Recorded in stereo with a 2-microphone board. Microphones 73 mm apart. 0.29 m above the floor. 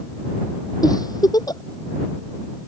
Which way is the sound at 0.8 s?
60° left (ahead or behind).